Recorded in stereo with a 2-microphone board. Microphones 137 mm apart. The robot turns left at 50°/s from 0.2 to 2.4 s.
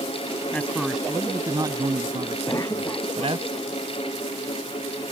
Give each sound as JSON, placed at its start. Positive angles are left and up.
{"t": 0.5, "sound": "a man speaking", "azimuth_deg": 15}
{"t": 2.5, "sound": "a cough", "side_deg": 20}